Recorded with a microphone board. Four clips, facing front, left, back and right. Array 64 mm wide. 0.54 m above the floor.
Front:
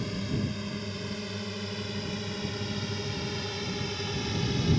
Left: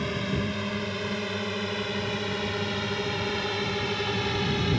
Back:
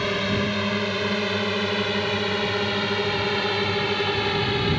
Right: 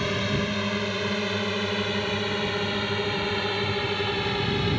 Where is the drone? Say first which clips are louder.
Right 3 dB, back 9 dB; 165° right; by 4.8 s 175° right.